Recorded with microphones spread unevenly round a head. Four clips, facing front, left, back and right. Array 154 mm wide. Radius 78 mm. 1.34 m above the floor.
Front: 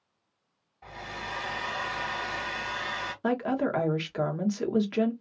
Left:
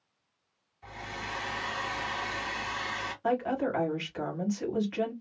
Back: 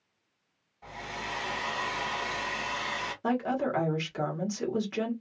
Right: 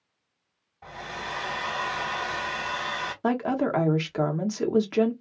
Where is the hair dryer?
75° right, 1.7 m.